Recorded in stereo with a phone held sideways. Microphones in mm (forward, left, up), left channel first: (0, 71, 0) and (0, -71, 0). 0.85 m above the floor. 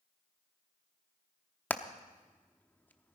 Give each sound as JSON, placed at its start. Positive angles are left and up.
{"t": 1.7, "sound": "hammering", "side_deg": 10, "distance_m": 0.7}